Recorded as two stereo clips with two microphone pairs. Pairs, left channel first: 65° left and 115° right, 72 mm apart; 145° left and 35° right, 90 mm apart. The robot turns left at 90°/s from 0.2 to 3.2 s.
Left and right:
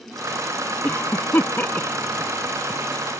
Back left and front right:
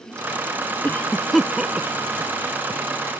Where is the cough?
100° left; by 2.8 s 75° right.